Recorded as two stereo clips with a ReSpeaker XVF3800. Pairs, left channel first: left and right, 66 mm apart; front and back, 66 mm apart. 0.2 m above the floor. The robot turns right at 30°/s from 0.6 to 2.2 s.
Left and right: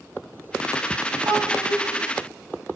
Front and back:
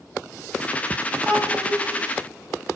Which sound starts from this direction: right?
A child speaking, at 1.2 s.